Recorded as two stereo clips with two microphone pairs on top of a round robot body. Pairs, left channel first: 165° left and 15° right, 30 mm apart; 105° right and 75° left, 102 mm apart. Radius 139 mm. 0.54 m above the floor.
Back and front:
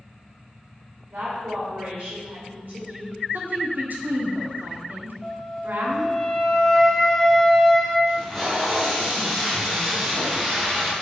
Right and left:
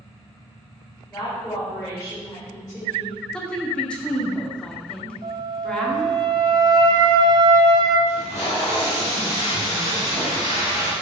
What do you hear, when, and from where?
1.1 s a woman speaking: 45° right, 3.5 m
3.3 s a woman speaking: 20° right, 1.8 m
5.2 s a flute: 95° left, 1.4 m
8.1 s tape being pulled: 100° right, 2.5 m